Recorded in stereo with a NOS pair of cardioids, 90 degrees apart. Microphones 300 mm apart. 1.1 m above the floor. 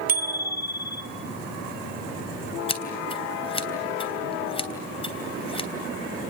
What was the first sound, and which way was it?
A bicycle bell, 30° right.